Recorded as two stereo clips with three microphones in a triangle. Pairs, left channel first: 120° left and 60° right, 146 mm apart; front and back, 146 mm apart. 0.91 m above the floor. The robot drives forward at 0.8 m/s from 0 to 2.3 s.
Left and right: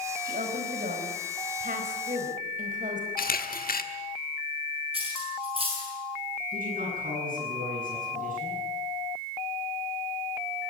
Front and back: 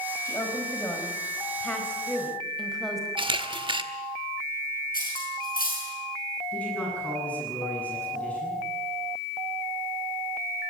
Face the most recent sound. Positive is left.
turn(degrees=-80)